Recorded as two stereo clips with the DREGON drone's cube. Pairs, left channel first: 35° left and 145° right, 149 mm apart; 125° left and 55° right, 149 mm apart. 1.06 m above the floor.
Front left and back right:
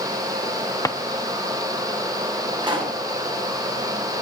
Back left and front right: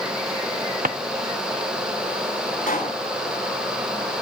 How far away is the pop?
About 9.5 m.